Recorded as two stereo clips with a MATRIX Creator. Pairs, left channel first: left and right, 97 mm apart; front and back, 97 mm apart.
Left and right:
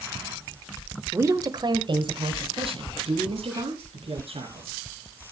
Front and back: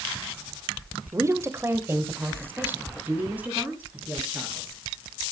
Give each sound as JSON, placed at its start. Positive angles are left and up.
{"t": 1.1, "sound": "a woman speaking", "azimuth_deg": -145, "distance_m": 1.0}